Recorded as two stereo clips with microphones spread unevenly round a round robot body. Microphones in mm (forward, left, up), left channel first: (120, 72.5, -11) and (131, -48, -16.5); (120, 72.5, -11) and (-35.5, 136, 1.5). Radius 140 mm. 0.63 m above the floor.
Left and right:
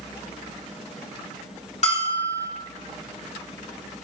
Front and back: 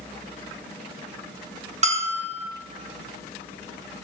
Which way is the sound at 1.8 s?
110° left.